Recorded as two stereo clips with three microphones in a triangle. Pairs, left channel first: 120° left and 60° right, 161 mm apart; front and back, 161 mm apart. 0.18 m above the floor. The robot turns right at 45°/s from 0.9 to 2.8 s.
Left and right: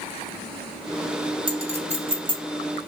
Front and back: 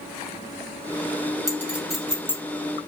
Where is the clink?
110° right, 1.3 m; by 2.4 s 70° right, 1.3 m.